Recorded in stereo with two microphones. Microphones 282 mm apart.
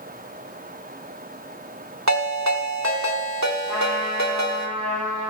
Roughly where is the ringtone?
Right.